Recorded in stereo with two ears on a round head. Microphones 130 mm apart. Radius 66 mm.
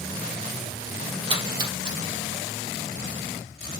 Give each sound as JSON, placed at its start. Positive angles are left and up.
{"t": 1.3, "sound": "a splash", "side_deg": -30, "distance_m": 4.0}